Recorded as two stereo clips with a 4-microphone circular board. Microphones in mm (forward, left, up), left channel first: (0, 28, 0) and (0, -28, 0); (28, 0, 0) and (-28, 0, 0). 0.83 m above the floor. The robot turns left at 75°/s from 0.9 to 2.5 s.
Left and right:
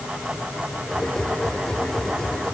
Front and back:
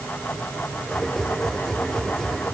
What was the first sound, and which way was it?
Only background noise.